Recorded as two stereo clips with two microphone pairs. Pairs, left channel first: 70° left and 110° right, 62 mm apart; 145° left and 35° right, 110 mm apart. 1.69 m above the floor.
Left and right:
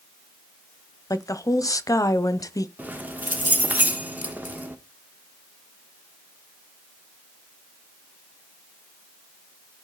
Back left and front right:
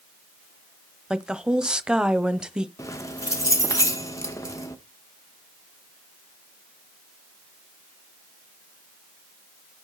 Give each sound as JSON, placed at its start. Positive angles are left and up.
{"t": 1.1, "sound": "a woman speaking", "azimuth_deg": 45, "distance_m": 0.8}
{"t": 2.8, "sound": "keys jangling", "azimuth_deg": -160, "distance_m": 1.1}